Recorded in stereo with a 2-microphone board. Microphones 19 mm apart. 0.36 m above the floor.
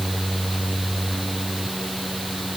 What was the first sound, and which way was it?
Only background noise.